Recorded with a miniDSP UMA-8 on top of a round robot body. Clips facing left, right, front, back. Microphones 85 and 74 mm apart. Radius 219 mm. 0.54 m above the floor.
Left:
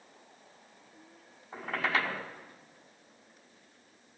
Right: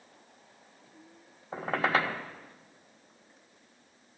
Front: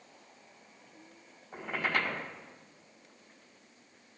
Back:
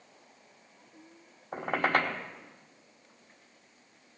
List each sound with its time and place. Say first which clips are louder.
1.5 s a squeak: right 4 dB, back 5 dB; 140° right, 1.4 m